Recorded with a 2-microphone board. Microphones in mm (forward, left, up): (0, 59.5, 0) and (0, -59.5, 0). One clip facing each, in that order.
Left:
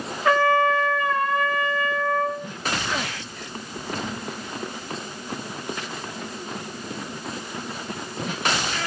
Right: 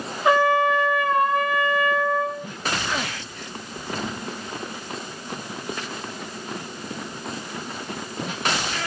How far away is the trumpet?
About 0.7 m.